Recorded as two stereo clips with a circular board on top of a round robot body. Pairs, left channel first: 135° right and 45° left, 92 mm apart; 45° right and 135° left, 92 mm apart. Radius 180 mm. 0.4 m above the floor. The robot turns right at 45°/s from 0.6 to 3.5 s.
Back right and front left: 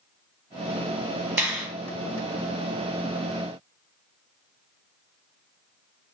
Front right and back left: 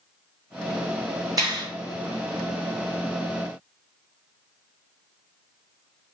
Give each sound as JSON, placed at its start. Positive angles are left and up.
{"t": 1.4, "sound": "a finger snap", "azimuth_deg": 105, "distance_m": 1.6}